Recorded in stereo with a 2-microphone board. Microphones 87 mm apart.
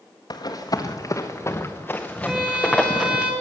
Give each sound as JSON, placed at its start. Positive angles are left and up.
{"t": 0.3, "sound": "running footsteps", "side_deg": 55, "distance_m": 1.8}
{"t": 2.3, "sound": "a violin", "side_deg": -15, "distance_m": 2.5}